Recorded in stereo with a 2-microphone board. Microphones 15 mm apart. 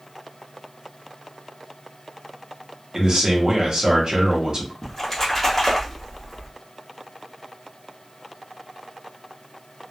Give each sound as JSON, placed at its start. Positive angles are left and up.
{"t": 2.9, "sound": "a man speaking", "side_deg": -55, "distance_m": 0.9}
{"t": 4.8, "sound": "a splash", "side_deg": 20, "distance_m": 0.9}